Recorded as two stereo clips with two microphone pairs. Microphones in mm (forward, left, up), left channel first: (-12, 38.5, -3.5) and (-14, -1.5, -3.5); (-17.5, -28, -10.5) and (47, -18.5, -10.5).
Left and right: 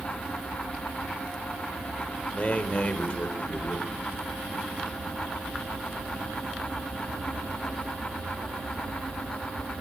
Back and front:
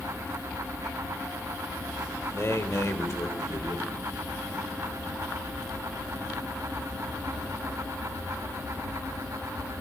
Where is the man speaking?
140° left, 2.5 m.